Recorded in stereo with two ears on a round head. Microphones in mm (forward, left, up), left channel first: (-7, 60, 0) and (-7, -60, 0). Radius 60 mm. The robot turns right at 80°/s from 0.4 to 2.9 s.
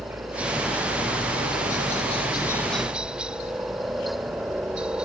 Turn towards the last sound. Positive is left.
turn(degrees=-170)